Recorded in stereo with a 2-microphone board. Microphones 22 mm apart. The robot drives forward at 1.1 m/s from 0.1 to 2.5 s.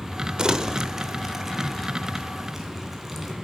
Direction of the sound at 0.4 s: 45° right (ahead or behind).